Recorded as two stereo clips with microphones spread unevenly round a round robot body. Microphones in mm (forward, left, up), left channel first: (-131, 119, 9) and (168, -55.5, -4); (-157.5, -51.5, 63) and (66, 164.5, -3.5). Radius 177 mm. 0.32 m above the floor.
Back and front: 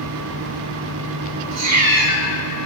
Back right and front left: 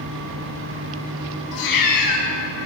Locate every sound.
1.5 s a cat meowing: 75° right, 1.5 m